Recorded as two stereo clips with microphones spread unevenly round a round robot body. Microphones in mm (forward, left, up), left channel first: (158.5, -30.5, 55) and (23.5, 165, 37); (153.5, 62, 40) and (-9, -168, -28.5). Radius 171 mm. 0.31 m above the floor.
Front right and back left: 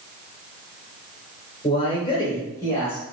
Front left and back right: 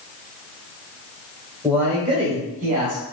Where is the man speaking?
85° right, 1.5 m; by 3.0 s 135° right, 2 m.